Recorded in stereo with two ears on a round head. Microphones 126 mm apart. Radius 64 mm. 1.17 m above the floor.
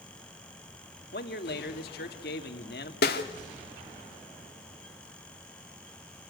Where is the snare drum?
85° left, 2 m.